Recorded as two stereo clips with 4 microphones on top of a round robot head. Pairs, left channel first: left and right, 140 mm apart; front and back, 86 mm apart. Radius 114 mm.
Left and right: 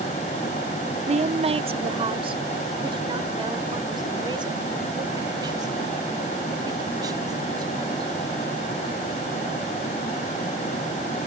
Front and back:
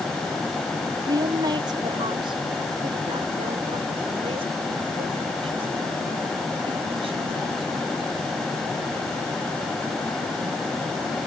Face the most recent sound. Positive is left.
turn(degrees=-155)